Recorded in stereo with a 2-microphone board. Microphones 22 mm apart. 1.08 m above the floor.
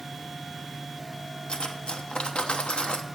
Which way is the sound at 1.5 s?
55° left (ahead or behind).